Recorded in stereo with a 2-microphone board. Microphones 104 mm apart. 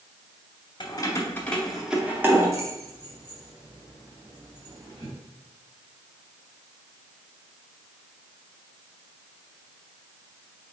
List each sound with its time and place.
0.8 s keys jangling: 45° left (ahead or behind), 0.8 m; by 5.1 s 60° right (ahead or behind), 2 m